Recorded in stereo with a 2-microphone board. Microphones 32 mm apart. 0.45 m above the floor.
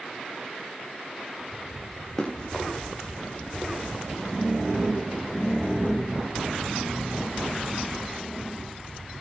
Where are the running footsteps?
15° left (ahead or behind), 4.5 m.